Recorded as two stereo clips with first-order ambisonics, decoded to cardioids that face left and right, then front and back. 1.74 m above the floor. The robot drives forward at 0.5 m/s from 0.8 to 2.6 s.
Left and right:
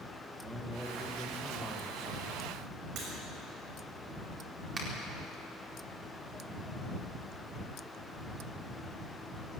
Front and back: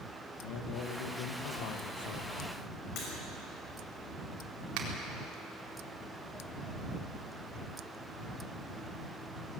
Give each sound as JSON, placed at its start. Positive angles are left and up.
{"t": 0.4, "sound": "a man speaking", "azimuth_deg": -5, "distance_m": 1.8}
{"t": 3.0, "sound": "breaking glass", "azimuth_deg": -45, "distance_m": 6.0}
{"t": 4.8, "sound": "a finger snap", "azimuth_deg": -160, "distance_m": 4.0}